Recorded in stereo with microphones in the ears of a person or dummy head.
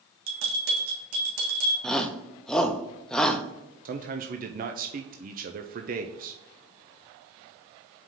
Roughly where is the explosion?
No explosion in this recording.